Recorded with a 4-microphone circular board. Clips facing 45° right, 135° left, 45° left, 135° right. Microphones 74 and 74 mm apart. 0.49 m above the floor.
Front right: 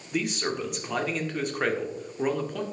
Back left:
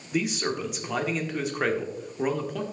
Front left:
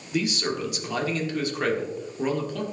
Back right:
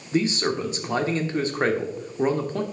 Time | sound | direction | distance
0.1 | a man speaking | 140° right | 1.2 m